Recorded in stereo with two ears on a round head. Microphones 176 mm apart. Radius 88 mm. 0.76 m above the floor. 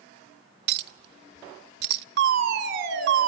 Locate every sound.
0.7 s a clink: 55° right (ahead or behind), 0.6 m
2.2 s a fire alarm: 65° right (ahead or behind), 4.5 m